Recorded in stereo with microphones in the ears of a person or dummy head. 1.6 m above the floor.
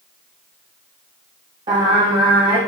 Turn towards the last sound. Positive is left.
turn(degrees=-30)  # may be behind; listen again after turning